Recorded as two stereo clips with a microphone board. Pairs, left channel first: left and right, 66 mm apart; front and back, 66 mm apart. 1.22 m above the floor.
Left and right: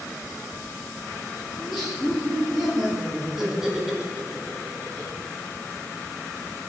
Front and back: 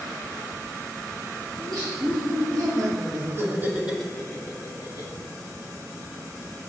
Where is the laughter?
Straight behind, 1.7 m; by 5.1 s 10° right, 0.9 m.